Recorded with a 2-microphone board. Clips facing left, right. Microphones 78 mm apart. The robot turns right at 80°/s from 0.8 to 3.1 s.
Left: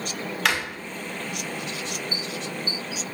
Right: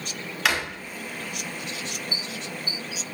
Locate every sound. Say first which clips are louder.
0.5 s a drawer: even; centre (ahead or behind), 0.7 m